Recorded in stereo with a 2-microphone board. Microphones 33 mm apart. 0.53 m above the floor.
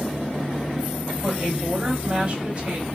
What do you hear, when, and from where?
1.2 s a woman speaking: 5° right (ahead or behind), 1.6 m; by 2.9 s 30° right (ahead or behind), 2.0 m